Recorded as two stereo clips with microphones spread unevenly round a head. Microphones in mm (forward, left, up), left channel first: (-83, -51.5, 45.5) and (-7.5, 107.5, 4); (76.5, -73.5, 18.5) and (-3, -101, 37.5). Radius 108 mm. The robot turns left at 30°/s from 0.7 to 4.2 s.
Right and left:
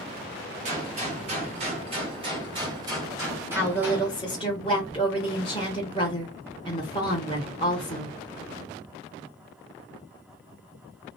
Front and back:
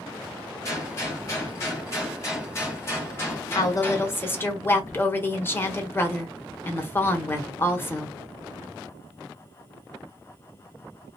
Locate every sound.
0.7 s a gunshot: 55° left, 0.8 m; by 4.1 s 50° right, 0.8 m
3.5 s a woman speaking: 30° right, 1.0 m; by 8.1 s 50° right, 1.0 m